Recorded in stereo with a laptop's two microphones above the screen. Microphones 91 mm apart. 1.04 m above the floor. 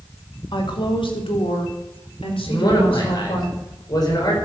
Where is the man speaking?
50° left (ahead or behind), 4.5 m.